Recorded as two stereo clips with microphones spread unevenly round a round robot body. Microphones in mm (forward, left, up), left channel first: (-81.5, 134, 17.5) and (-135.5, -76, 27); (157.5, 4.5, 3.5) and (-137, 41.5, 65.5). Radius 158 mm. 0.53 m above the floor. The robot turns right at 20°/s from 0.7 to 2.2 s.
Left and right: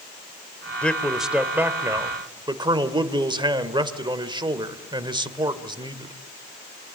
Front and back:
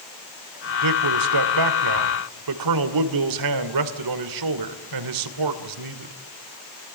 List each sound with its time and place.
0.8 s a man speaking: 160° left, 2.5 m; by 6.2 s 175° right, 2.5 m